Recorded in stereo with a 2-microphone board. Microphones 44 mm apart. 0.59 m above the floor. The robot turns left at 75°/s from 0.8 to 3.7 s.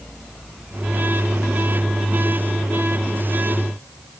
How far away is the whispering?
I don't hear whispering.